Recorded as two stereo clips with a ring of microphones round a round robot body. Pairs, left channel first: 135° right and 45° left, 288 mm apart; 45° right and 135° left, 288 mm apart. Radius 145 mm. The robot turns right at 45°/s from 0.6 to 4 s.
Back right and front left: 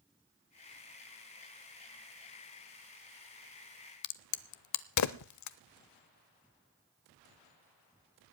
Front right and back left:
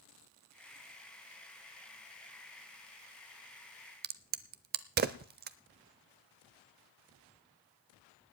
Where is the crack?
165° right, 0.7 m.